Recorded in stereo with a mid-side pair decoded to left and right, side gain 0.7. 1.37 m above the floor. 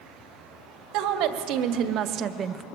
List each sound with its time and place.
0.9 s a woman speaking: 65° right, 1.3 m; by 2.6 s 25° right, 0.5 m